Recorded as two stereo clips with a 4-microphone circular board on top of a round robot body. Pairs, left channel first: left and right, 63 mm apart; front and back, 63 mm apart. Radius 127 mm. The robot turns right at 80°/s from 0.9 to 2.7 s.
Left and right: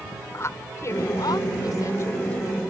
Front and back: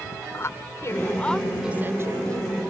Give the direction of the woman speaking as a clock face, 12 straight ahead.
10 o'clock.